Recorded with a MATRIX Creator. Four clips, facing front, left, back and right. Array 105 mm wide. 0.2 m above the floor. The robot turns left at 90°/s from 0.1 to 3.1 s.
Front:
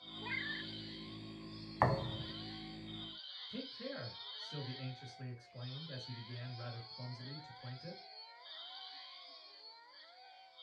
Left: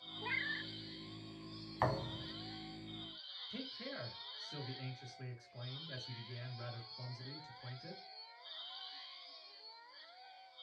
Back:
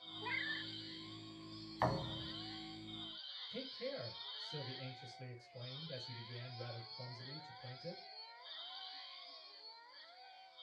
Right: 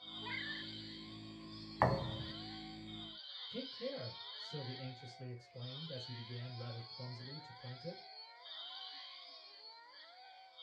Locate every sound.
0.2 s a cat meowing: 105° left, 0.7 m; by 0.7 s 60° left, 0.7 m
1.8 s a thud: 30° right, 0.7 m; by 2.3 s 75° right, 0.7 m
3.5 s a man speaking: 45° left, 3 m